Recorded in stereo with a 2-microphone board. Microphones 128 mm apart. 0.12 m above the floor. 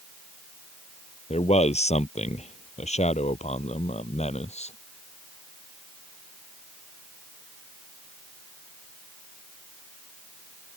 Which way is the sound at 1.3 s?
60° left (ahead or behind).